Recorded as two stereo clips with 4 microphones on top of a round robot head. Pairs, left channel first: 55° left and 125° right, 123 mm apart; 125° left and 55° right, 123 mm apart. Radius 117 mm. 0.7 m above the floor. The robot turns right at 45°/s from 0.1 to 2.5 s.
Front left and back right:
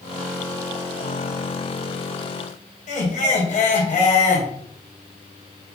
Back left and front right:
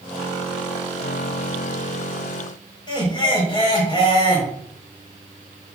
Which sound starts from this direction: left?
Laughter, at 2.9 s.